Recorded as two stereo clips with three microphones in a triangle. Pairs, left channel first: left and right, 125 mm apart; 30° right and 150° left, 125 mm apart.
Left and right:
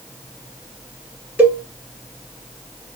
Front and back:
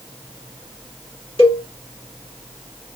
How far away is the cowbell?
About 1.3 m.